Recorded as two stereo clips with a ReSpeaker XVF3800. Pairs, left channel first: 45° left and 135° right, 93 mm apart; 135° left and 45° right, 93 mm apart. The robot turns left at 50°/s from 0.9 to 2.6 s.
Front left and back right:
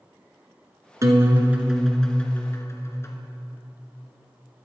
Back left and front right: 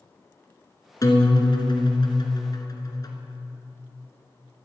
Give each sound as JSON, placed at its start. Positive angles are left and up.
{"t": 1.0, "sound": "a guitar", "azimuth_deg": 175, "distance_m": 1.9}